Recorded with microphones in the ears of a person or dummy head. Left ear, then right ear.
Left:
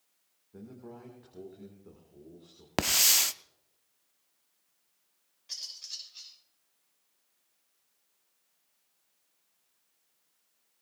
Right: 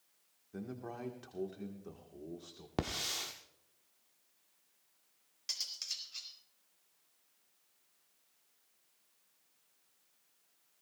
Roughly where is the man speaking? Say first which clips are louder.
Right 3 dB; right.